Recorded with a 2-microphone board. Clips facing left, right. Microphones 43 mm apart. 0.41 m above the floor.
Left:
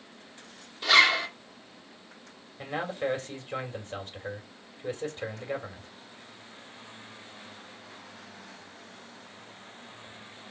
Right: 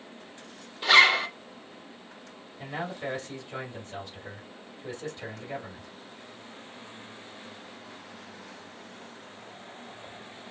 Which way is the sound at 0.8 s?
15° right (ahead or behind).